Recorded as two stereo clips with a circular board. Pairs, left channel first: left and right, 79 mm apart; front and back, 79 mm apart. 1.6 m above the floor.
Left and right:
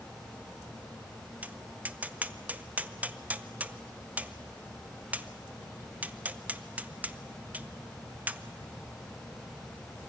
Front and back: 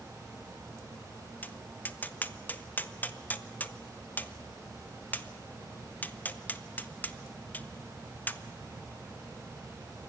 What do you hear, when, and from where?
1.4 s tapping: 40° right, 0.6 m